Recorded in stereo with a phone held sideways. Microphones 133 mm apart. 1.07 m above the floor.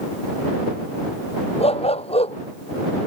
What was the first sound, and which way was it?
A dog barking, 50° left (ahead or behind).